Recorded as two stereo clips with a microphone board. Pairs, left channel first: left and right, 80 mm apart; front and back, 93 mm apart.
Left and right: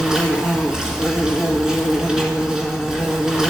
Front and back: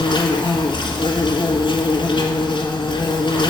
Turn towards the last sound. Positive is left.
turn(degrees=-5)